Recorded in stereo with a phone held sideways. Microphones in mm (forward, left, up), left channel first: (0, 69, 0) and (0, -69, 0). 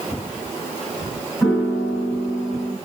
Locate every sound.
1.4 s a piano: centre (ahead or behind), 3 m